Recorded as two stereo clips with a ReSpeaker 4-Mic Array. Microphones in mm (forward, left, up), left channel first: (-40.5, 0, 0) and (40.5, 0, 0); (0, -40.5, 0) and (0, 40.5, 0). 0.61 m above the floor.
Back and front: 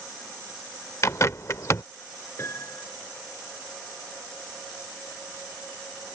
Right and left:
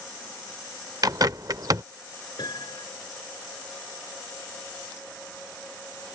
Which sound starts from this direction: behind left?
A bird, at 1.0 s.